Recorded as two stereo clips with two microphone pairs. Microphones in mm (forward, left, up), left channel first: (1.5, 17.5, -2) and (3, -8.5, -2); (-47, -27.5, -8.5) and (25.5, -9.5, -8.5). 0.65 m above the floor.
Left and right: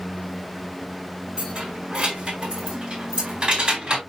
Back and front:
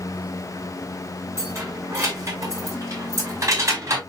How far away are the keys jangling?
About 4.5 m.